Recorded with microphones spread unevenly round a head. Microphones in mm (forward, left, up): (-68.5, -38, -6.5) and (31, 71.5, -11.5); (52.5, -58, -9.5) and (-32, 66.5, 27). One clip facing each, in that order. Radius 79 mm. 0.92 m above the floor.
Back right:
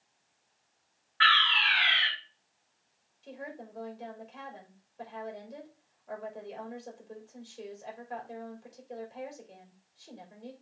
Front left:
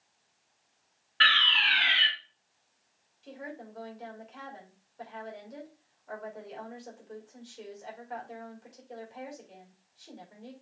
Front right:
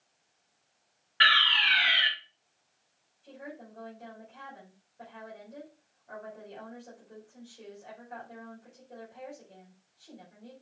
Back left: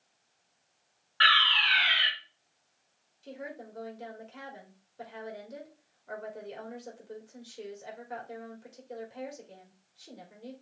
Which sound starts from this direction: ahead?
A fire alarm, at 1.2 s.